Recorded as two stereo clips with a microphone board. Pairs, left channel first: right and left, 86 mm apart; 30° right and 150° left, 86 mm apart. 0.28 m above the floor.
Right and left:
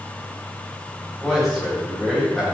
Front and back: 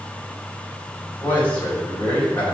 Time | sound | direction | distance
1.2 | a man speaking | straight ahead | 1.4 m